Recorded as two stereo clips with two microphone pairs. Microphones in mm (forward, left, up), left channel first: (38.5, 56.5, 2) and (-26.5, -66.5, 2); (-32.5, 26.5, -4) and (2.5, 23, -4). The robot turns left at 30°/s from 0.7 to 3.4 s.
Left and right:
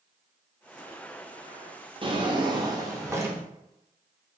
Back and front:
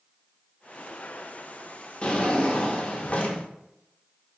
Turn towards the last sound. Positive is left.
turn(degrees=175)